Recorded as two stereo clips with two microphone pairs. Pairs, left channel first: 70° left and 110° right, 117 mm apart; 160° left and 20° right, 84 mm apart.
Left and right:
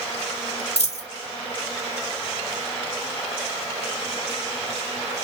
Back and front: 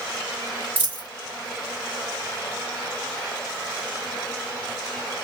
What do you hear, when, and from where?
0.8 s a dropped coin: 50° left, 2.5 m